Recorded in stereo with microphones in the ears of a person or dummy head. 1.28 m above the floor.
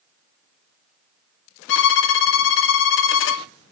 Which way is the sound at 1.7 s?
70° left (ahead or behind).